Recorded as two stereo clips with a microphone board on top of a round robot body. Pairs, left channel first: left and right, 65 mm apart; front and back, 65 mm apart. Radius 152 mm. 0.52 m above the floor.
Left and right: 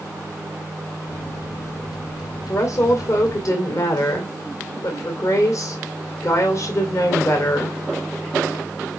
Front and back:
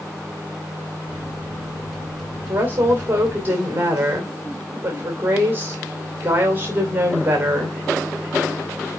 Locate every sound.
1.1 s a microwave: 105° left, 3 m
2.5 s a woman speaking: 125° left, 2.5 m